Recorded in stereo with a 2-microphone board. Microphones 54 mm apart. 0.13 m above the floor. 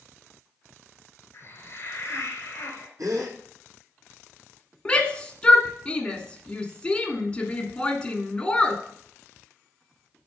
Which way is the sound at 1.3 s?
45° left (ahead or behind).